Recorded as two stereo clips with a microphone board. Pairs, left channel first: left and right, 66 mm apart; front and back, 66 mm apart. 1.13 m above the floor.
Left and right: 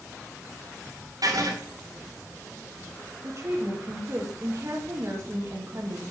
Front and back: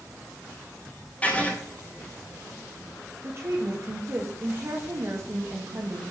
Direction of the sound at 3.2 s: 135° right.